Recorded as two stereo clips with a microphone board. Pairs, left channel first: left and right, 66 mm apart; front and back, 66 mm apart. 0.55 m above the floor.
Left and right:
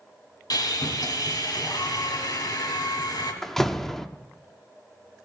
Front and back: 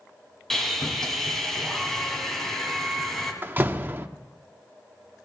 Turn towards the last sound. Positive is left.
turn(degrees=170)